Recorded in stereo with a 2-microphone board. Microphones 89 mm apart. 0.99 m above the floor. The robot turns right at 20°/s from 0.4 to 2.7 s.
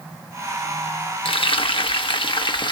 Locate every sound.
1.2 s frying: 80° left, 1.1 m; by 2.7 s 65° left (ahead or behind), 1.1 m